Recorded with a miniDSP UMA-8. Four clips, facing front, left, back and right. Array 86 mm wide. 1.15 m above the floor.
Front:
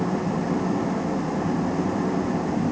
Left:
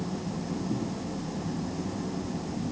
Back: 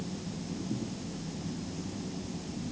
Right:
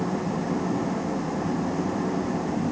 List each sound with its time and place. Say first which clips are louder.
0.0 s an engine running: right 7 dB, front 15 dB; 30° right